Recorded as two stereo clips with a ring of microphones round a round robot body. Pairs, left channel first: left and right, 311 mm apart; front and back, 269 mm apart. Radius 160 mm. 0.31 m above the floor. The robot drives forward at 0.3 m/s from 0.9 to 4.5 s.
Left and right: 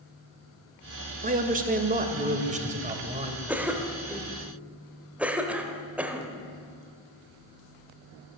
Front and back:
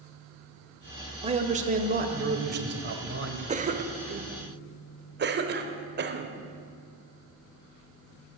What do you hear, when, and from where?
1.2 s a man speaking: 130° right, 1.2 m; by 3.4 s 155° right, 1.6 m
3.5 s a cough: 170° right, 1.1 m; by 6.4 s 175° right, 1.2 m